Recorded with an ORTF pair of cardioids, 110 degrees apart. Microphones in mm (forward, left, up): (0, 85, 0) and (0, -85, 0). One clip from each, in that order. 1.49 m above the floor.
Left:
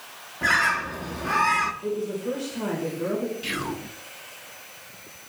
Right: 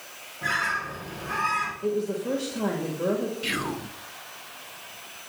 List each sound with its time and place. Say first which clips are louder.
0.4 s a bird: left 5 dB; 50° left, 1.2 m
1.8 s a woman speaking: right 1 dB; 20° right, 2 m
3.4 s whispering: right 1 dB; 5° right, 0.7 m